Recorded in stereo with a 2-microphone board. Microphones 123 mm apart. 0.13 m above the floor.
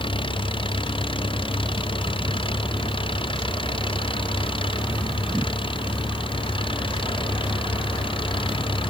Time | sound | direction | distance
0.0 | an engine running | 45° left (ahead or behind) | ?